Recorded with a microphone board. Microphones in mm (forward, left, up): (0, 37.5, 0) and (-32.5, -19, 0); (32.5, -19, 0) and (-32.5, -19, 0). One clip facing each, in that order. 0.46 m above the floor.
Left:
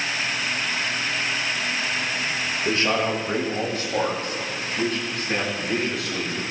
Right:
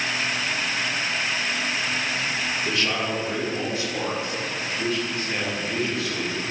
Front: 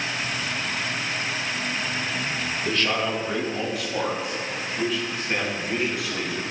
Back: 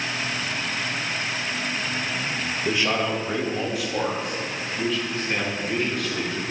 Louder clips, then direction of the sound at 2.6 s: Left 6 dB, back 1 dB; 110° left.